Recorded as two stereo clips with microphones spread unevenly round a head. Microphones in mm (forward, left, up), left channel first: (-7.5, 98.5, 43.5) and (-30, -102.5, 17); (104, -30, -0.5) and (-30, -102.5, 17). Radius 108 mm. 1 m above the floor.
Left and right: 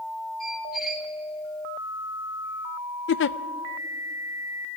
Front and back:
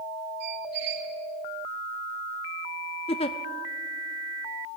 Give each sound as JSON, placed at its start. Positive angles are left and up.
{"t": 0.4, "sound": "a squeak", "azimuth_deg": 170, "distance_m": 3.0}
{"t": 3.1, "sound": "a giggle", "azimuth_deg": 65, "distance_m": 0.6}